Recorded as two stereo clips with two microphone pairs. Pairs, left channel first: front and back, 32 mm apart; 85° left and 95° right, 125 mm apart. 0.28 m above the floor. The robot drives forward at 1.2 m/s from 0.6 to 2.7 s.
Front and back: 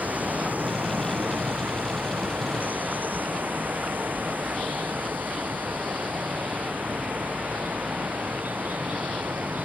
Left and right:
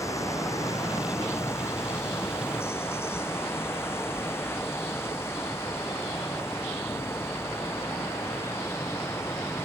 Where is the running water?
150° left; by 9.7 s 155° left.